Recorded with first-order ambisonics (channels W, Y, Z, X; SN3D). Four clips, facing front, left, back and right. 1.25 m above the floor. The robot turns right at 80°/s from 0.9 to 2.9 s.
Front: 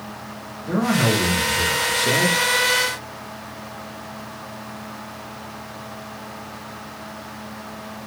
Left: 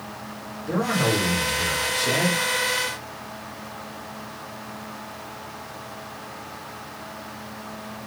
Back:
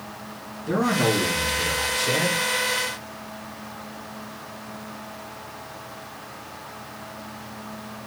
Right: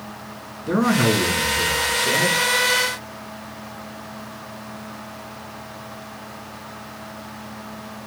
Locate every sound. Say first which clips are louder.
0.7 s a man speaking: right 4 dB, front 2 dB; 95° right, 2 m; by 2.4 s 25° left, 2 m